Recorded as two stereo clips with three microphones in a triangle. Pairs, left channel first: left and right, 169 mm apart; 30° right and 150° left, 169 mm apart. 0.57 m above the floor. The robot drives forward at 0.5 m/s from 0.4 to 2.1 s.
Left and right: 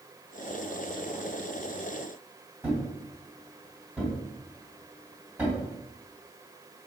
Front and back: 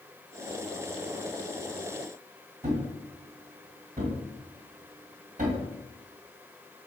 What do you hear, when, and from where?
2.6 s a thud: 170° right, 1.9 m